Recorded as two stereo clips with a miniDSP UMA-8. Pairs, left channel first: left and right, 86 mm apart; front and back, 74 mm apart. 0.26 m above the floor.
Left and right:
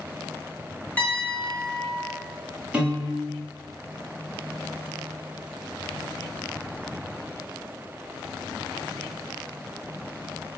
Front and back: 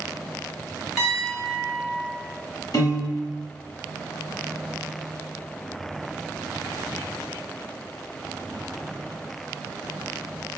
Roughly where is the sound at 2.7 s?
Ahead.